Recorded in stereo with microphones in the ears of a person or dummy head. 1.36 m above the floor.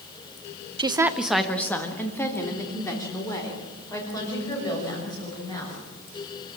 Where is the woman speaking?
25° right (ahead or behind), 0.6 m; by 5.8 s 25° left (ahead or behind), 7.5 m.